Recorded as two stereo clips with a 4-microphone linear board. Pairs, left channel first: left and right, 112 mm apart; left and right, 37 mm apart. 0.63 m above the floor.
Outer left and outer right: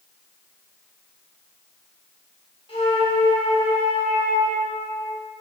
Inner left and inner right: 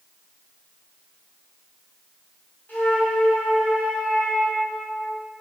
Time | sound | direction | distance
2.7 | a flute | 55° left (ahead or behind) | 2 m